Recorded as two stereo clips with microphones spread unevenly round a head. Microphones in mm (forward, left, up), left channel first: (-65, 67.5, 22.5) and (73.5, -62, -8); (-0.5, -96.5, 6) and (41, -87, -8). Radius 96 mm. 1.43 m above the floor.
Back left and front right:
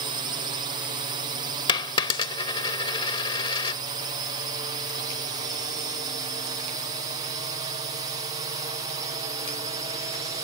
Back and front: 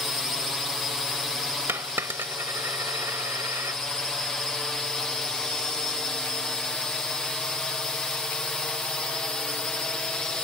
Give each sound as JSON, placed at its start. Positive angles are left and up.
{"t": 0.0, "sound": "a drone", "azimuth_deg": -65}
{"t": 1.7, "sound": "a dropped coin", "azimuth_deg": 80}